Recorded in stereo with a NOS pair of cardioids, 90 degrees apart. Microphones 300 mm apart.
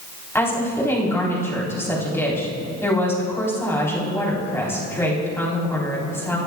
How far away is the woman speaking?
About 4 m.